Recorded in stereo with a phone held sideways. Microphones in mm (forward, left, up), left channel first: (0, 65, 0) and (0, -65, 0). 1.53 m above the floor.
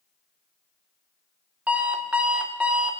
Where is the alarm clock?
10° right (ahead or behind), 0.7 m.